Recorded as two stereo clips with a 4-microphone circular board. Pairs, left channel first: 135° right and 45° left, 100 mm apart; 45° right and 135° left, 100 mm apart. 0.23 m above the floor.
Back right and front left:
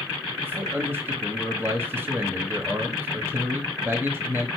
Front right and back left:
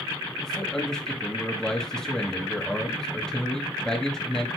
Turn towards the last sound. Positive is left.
turn(degrees=35)